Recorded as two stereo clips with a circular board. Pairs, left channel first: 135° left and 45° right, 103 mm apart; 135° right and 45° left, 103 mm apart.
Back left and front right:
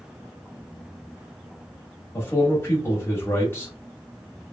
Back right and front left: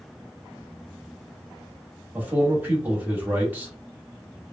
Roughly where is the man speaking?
Left.